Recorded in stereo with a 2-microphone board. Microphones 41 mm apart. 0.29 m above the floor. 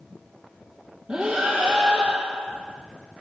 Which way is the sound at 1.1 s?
20° right (ahead or behind).